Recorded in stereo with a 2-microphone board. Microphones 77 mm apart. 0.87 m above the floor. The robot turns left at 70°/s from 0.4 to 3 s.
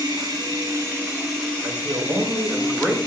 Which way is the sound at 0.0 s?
115° right.